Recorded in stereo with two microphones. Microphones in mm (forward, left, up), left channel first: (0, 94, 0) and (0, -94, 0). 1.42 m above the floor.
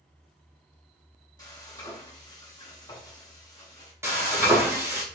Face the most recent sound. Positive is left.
turn(degrees=-15)  # may be behind; listen again after turning